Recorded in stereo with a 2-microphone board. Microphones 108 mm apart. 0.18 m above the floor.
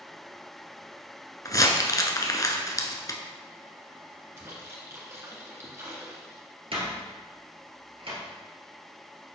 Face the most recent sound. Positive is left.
turn(degrees=-55)  # may be behind; listen again after turning